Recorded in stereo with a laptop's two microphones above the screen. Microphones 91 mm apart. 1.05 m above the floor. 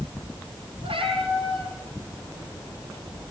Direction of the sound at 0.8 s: 80° right.